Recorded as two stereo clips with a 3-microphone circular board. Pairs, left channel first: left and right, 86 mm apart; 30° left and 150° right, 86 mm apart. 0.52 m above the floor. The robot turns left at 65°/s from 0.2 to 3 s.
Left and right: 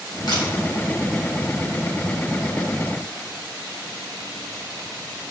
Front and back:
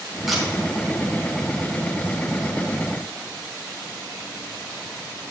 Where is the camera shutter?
125° left, 3.5 m; by 0.4 s 115° left, 3.5 m.